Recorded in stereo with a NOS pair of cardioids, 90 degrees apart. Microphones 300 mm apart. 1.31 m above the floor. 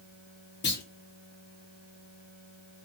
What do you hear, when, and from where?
0.6 s a clunk: 35° left, 0.9 m